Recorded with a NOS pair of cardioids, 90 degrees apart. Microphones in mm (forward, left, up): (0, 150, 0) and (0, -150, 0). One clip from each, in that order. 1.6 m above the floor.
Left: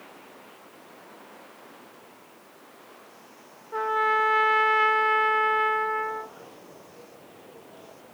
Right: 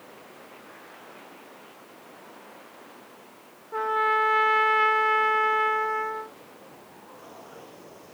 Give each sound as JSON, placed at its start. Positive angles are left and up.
{"t": 3.7, "sound": "a trumpet", "azimuth_deg": 5}